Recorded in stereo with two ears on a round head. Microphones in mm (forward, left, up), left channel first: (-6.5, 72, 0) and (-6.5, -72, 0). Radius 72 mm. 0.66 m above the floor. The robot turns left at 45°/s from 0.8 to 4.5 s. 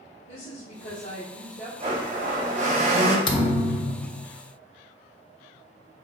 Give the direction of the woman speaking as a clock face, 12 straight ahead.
9 o'clock.